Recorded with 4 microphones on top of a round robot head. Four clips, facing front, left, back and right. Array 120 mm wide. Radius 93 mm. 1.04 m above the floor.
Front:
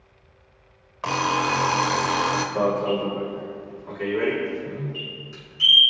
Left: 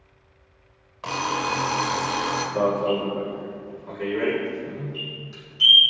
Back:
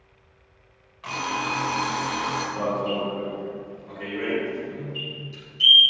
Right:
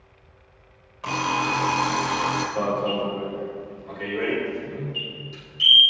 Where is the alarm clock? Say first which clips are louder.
Right 1 dB, front 6 dB; 10° left, 1.5 m.